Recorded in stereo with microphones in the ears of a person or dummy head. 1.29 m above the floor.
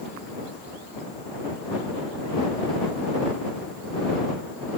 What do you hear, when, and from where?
Only background noise.